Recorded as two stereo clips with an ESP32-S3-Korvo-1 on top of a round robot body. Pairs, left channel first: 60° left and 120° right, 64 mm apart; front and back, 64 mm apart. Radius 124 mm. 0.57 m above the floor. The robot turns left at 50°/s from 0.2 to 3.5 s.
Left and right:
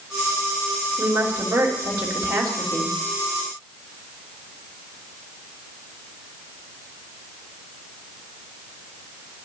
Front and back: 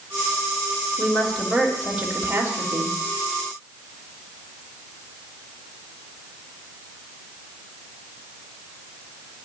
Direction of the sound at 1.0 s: 65° right.